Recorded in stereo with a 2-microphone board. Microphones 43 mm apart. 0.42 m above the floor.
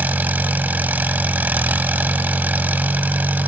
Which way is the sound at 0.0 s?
40° right (ahead or behind).